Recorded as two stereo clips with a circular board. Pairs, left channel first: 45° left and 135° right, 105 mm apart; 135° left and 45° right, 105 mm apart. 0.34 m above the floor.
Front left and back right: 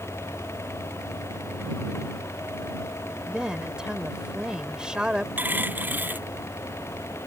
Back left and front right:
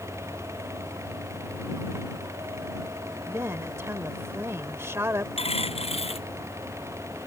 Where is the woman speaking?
65° right.